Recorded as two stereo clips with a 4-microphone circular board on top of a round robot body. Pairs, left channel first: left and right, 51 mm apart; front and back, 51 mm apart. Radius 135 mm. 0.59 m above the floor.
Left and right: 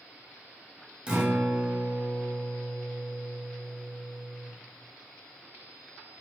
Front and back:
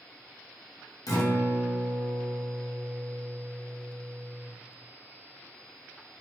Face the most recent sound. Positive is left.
turn(degrees=-15)